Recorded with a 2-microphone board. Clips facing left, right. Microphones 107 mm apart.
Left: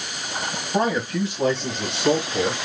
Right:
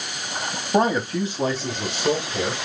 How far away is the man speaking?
About 1.3 m.